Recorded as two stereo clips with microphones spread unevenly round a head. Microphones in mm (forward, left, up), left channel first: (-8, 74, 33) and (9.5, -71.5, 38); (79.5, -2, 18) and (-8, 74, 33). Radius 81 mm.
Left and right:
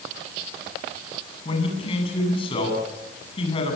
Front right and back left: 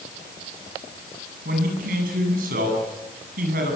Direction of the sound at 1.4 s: 155° left.